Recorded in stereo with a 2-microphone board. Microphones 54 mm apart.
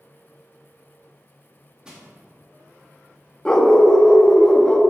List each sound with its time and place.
1.9 s crushing: 15° right (ahead or behind), 1.9 m
3.5 s a dog barking: 15° left (ahead or behind), 0.8 m